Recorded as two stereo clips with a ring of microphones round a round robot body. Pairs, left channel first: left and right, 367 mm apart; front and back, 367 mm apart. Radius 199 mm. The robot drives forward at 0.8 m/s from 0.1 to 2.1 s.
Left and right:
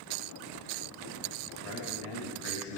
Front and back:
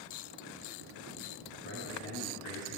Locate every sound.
1.6 s a man speaking: 65° left, 3 m; by 2.8 s 70° left, 3 m